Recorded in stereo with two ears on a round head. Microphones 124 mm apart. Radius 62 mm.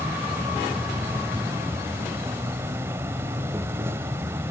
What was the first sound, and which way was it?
An insect, 20° right (ahead or behind).